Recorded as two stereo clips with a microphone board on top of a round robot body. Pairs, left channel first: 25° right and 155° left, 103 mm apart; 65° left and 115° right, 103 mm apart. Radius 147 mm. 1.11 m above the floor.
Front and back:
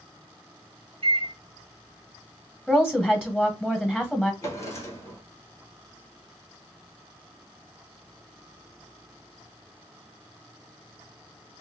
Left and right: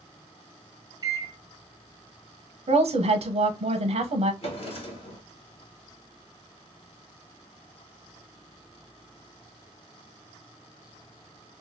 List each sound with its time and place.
1.0 s a microwave: 165° right, 0.8 m
2.7 s a woman speaking: 110° right, 0.9 m
4.4 s a drawer: 40° left, 1.1 m